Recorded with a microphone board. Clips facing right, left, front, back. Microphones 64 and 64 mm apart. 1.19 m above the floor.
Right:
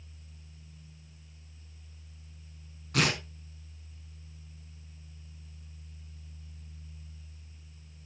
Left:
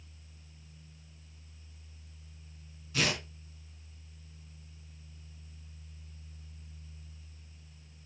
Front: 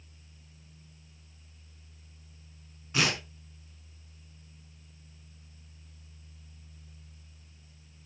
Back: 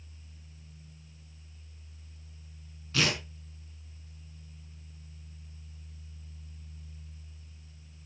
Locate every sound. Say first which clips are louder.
2.9 s tearing paper: right 3 dB, front 1 dB; 70° right, 4.5 m